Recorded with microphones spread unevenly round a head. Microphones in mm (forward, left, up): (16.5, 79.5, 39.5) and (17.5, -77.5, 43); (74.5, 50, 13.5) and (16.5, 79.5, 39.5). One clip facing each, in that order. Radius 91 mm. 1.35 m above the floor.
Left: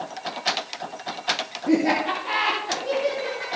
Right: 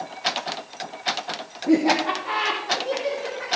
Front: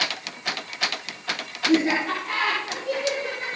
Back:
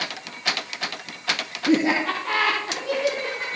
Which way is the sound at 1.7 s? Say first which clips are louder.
Right 1 dB, back 1 dB; 160° left.